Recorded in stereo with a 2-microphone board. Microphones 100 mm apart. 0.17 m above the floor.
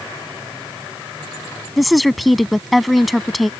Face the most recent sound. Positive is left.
turn(degrees=0)  # may be behind; listen again after turning